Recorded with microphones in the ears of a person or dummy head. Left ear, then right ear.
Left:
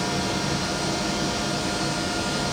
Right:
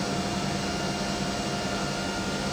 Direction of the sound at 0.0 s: 40° left (ahead or behind).